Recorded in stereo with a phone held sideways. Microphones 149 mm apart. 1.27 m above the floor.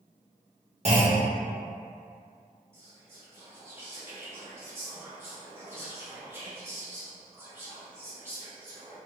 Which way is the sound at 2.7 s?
15° right (ahead or behind).